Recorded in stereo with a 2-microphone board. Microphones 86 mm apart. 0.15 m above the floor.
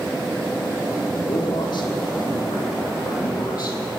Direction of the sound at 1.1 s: 55° left (ahead or behind).